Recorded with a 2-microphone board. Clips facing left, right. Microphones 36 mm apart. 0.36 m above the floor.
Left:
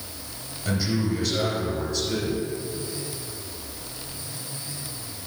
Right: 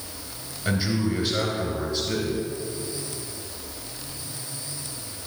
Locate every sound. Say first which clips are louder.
0.7 s a man speaking: right 1 dB; 20° right (ahead or behind), 2 m